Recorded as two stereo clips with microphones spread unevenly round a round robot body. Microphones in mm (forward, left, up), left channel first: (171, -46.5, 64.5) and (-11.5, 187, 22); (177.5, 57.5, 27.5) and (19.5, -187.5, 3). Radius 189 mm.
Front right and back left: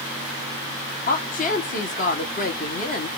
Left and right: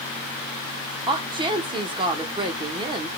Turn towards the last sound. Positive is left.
turn(degrees=-95)